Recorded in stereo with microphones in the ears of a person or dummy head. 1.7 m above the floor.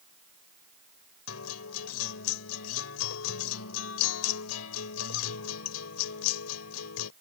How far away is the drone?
I don't hear a drone.